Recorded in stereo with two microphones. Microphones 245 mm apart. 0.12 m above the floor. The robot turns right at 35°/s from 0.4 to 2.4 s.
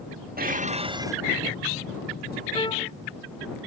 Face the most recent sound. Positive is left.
turn(degrees=20)  # may be behind; listen again after turning